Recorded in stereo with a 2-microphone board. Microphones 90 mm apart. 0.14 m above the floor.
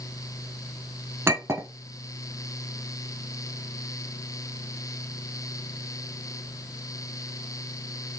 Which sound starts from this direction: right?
A clink, at 1.3 s.